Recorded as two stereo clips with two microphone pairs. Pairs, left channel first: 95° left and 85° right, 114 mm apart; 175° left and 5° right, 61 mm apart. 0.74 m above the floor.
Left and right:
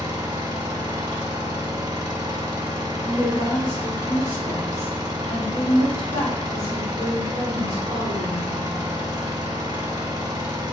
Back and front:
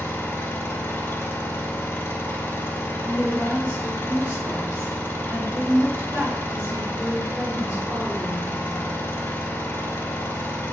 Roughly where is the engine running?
Behind right.